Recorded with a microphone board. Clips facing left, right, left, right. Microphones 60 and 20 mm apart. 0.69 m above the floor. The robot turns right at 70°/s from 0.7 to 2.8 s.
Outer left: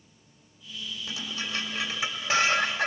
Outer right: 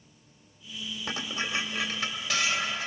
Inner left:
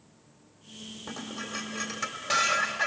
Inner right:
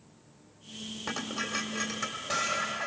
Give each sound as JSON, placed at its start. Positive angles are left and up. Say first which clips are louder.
{"t": 1.1, "sound": "dishes clattering", "louder": "outer right 3 dB, inner right 4 dB", "azimuth_deg": -55, "distance_m": 1.7}